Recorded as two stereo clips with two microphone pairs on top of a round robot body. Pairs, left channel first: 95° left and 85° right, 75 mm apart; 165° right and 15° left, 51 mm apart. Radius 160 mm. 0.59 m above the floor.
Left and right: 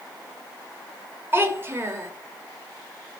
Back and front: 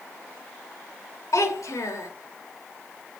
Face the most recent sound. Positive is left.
turn(degrees=-145)